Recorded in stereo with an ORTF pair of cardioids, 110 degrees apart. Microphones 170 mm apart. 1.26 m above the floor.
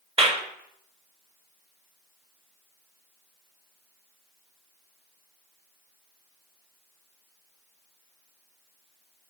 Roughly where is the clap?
Ahead right.